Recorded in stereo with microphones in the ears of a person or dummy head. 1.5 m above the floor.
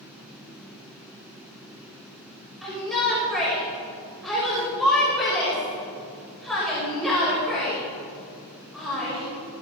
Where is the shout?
Centre (ahead or behind), 5.5 m.